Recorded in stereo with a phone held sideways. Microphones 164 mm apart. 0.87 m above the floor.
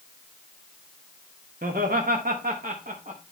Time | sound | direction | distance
1.6 | laughter | 55° right (ahead or behind) | 1.2 m